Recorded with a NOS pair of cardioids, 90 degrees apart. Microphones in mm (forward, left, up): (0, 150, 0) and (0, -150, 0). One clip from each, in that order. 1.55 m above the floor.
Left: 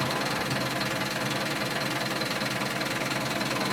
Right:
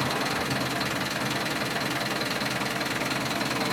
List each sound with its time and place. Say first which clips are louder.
0.0 s an engine running: right 1 dB; 5° right, 0.9 m